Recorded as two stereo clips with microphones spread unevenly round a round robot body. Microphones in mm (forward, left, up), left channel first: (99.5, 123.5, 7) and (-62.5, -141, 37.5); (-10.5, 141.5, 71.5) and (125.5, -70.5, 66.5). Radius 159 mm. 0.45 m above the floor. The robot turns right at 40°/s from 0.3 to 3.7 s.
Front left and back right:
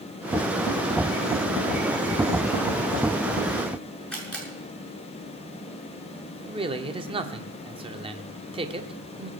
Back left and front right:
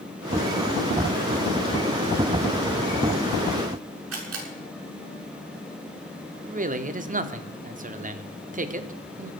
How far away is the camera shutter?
About 7 m.